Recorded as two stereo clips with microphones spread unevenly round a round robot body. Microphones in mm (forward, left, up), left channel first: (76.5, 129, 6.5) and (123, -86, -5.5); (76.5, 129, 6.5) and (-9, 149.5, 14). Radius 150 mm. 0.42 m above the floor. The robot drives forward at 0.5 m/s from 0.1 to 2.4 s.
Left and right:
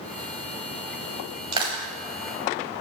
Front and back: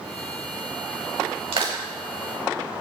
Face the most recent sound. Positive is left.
turn(degrees=-160)